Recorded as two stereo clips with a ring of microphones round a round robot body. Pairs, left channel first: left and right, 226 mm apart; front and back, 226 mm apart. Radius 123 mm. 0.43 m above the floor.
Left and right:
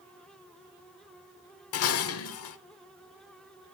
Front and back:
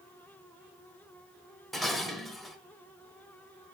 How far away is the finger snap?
No finger snap in this recording.